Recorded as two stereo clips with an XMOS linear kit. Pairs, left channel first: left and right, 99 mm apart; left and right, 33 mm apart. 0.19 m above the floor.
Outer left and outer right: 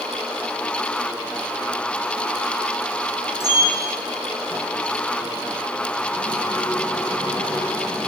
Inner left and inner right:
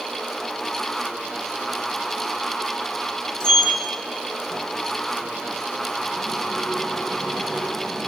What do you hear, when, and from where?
3.4 s a sliding door: 25° left (ahead or behind), 2.5 m